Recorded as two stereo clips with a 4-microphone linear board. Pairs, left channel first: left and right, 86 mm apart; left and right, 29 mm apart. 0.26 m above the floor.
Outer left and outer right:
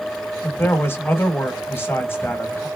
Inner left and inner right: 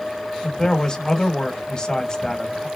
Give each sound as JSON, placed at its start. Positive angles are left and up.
{"t": 0.4, "sound": "a man speaking", "side_deg": 25, "distance_m": 1.1}